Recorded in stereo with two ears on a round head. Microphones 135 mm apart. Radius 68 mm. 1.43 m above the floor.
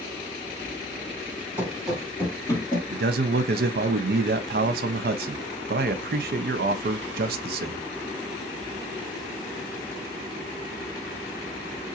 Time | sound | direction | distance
1.6 | running footsteps | 10° right (ahead or behind) | 1.7 m
2.9 | a man speaking | 75° right (ahead or behind) | 0.7 m